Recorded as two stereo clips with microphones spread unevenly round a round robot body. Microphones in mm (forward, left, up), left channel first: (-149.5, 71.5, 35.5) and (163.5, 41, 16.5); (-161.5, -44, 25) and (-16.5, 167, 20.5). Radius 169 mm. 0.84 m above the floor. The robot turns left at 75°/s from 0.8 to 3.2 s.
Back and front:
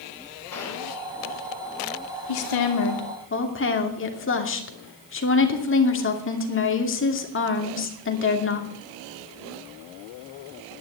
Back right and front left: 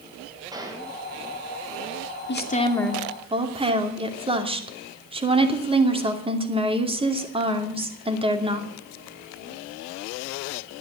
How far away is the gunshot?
About 3.5 m.